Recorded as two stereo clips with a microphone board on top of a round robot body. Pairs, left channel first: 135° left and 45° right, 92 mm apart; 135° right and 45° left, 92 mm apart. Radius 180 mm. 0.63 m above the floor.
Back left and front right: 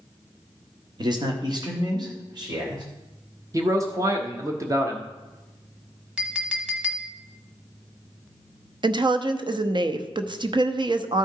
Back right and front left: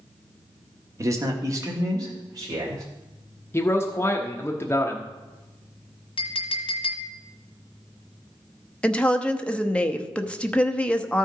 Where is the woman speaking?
60° right, 1.0 m.